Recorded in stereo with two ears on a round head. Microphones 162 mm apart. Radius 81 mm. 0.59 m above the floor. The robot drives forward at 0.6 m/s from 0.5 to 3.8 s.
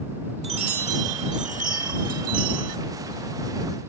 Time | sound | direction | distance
0.4 | a chime | 35° right (ahead or behind) | ?